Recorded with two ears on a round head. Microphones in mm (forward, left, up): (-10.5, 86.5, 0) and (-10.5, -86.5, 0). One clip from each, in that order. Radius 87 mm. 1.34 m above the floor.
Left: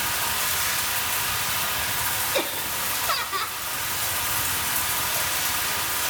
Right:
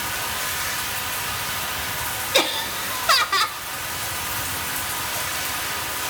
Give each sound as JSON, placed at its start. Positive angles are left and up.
{"t": 0.0, "sound": "running water", "side_deg": 15, "distance_m": 1.4}
{"t": 2.3, "sound": "laughter", "side_deg": -30, "distance_m": 1.2}